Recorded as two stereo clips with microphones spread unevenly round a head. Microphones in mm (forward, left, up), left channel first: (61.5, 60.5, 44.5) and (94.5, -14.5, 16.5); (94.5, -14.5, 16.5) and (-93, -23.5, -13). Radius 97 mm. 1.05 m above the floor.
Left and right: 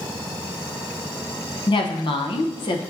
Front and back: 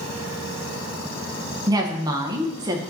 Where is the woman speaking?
130° left, 0.8 m.